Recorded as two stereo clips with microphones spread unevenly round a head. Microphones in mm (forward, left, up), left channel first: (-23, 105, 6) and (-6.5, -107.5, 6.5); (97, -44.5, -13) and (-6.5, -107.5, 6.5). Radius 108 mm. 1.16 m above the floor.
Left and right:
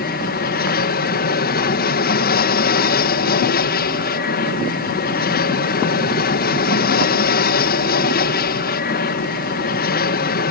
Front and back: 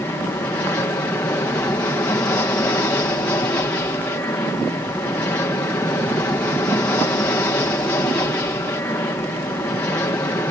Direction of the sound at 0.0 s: 100° left.